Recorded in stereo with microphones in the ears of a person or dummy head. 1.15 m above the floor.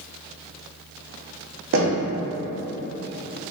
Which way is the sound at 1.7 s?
65° right (ahead or behind).